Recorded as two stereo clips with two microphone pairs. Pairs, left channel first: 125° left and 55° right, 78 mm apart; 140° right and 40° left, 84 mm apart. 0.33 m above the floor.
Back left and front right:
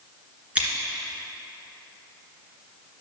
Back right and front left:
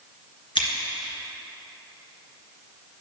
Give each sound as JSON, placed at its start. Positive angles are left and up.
{"t": 0.6, "sound": "scissors", "azimuth_deg": -125, "distance_m": 2.0}